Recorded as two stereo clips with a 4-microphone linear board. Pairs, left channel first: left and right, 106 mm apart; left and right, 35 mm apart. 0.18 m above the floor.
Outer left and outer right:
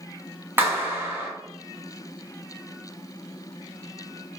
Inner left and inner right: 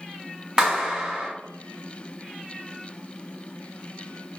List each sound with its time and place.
0.6 s a clap: 20° right (ahead or behind), 1.1 m